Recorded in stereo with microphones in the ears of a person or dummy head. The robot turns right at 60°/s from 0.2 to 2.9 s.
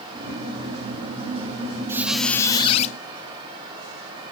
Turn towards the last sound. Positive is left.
turn(degrees=45)